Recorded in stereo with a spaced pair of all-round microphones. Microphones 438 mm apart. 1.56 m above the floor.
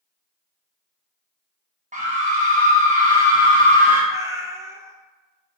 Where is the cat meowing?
5° right (ahead or behind), 0.7 m.